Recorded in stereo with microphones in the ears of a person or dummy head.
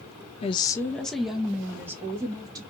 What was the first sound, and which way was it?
A woman speaking, 30° left (ahead or behind).